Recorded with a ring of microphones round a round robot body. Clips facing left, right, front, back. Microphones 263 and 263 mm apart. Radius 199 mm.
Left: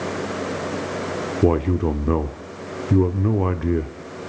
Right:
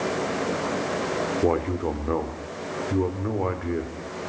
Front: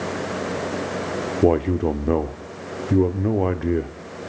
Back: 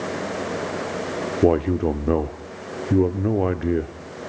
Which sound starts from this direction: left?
A man speaking, at 1.4 s.